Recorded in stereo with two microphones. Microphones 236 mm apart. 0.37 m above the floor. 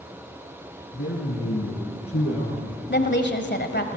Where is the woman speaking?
50° left (ahead or behind), 1.6 m.